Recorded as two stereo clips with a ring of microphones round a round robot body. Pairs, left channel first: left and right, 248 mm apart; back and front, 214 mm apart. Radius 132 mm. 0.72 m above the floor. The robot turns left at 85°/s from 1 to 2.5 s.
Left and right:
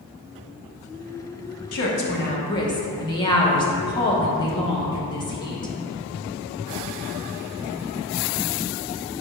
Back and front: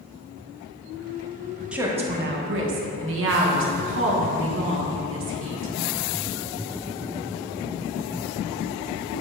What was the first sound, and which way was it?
A woman speaking, 85° left.